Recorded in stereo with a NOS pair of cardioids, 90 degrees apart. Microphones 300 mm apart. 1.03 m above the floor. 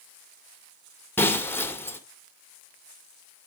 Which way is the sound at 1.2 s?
5° left.